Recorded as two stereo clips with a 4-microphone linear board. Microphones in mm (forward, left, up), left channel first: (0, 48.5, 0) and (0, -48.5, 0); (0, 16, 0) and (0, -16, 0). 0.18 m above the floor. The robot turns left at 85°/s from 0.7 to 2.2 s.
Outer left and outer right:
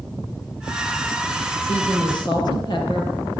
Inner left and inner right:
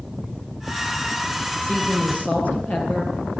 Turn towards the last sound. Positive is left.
turn(degrees=55)